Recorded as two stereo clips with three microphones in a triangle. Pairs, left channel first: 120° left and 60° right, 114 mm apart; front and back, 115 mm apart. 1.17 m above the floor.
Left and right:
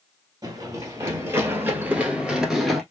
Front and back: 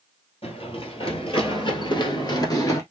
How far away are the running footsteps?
About 1.9 m.